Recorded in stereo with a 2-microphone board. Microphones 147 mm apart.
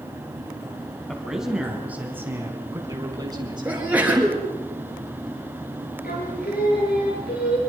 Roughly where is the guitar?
I don't hear a guitar.